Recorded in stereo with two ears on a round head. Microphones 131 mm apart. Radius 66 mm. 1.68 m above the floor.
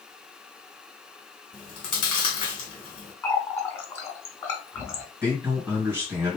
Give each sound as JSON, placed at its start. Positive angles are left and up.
{"t": 1.5, "sound": "chewing", "side_deg": 35, "distance_m": 2.0}
{"t": 3.2, "sound": "a running tap", "side_deg": 15, "distance_m": 1.2}
{"t": 5.2, "sound": "a man speaking", "side_deg": -15, "distance_m": 2.0}